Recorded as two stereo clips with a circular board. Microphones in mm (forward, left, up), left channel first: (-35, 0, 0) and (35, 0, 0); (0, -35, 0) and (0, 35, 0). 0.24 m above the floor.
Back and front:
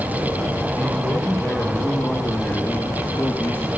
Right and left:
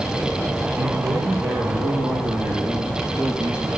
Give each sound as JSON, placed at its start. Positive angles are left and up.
{"t": 0.8, "sound": "a man speaking", "azimuth_deg": 130, "distance_m": 4.5}